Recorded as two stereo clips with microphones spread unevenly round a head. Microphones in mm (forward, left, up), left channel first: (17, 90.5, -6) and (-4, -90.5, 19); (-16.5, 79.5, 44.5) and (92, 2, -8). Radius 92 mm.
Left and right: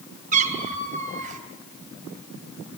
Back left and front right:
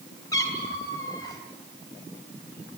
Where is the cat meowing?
145° right, 3 m.